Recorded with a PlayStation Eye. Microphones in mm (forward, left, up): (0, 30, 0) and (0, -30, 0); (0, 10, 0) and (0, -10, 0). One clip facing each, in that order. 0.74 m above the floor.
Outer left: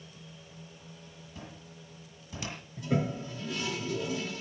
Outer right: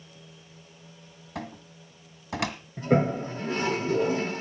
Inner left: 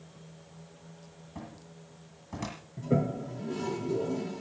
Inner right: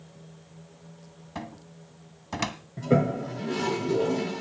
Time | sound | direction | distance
1.4 | a cupboard door | 70° right (ahead or behind) | 1.8 m
2.8 | a toilet flushing | 40° right (ahead or behind) | 0.7 m